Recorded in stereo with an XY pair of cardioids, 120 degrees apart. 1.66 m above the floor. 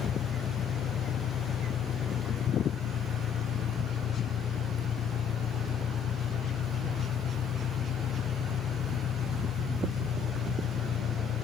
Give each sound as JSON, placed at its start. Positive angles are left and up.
{"t": 0.0, "sound": "an engine running", "azimuth_deg": 55}